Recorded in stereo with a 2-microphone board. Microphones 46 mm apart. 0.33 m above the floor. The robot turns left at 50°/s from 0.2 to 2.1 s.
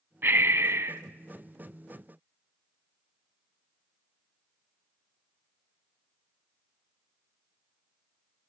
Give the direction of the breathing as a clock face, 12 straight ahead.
2 o'clock.